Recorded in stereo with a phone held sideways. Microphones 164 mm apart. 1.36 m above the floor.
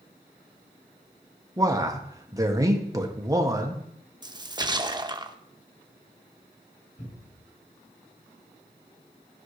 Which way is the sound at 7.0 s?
75° left (ahead or behind).